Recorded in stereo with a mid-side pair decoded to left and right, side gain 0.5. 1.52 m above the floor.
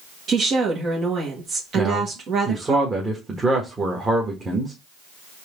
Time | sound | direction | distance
0.3 | a woman speaking | 55° right | 1.8 m
1.8 | a man speaking | 25° right | 1.7 m